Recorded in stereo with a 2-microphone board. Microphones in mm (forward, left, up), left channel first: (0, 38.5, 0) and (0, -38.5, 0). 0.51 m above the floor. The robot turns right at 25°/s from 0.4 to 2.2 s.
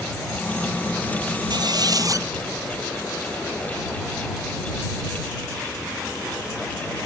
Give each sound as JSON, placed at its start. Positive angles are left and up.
{"t": 1.5, "sound": "a squeak", "side_deg": -65}